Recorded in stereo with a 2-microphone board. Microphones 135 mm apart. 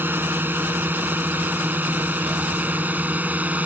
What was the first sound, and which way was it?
A drone, 15° right (ahead or behind).